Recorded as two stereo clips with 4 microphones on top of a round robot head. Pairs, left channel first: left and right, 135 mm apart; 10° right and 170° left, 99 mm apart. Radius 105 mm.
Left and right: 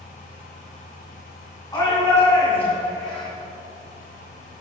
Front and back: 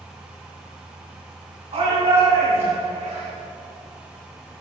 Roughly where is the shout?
Behind left.